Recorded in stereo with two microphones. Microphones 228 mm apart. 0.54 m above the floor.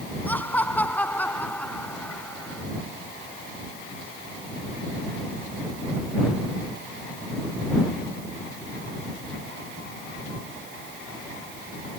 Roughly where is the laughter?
Centre.